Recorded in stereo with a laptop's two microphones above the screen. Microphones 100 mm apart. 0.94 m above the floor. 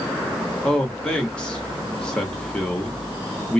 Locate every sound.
0.6 s a man speaking: 10° left (ahead or behind), 2.0 m